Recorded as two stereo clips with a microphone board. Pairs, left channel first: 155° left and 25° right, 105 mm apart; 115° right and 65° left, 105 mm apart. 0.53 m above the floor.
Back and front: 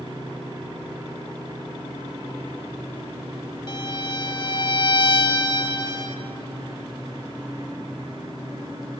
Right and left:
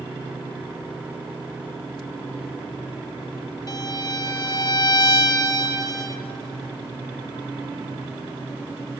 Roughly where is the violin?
Behind.